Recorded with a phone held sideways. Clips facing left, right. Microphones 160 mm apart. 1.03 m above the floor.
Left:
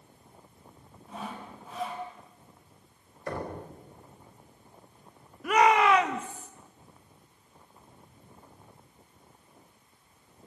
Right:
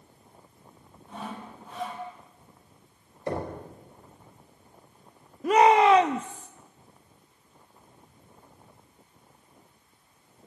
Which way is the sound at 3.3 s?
25° right (ahead or behind).